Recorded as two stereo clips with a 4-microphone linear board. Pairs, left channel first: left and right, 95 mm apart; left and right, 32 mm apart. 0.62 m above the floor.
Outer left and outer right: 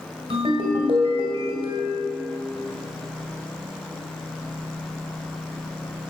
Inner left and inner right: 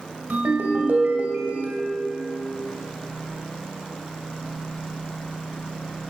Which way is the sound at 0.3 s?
75° right (ahead or behind).